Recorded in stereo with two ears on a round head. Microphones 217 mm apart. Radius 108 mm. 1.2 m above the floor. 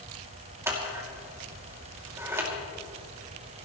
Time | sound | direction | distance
0.7 | scissors | 10° right (ahead or behind) | 2.5 m